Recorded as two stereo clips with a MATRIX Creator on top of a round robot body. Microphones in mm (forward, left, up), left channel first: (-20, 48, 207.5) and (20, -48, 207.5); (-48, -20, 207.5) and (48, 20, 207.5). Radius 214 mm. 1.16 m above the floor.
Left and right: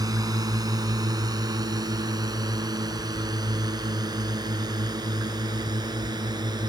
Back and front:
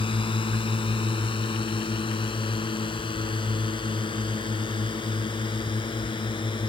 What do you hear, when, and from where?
0.0 s a drone: 120° right; by 6.7 s 115° right